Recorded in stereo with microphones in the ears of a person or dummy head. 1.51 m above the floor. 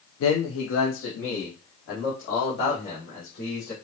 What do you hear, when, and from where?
0.2 s a man speaking: 70° left (ahead or behind), 0.5 m; by 3.7 s 55° left (ahead or behind), 2.5 m